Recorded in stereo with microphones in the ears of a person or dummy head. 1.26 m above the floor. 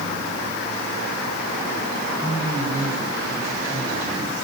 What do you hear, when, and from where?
2.2 s a man speaking: 15° right (ahead or behind), 9.5 m; by 4.3 s 10° right (ahead or behind), 8.5 m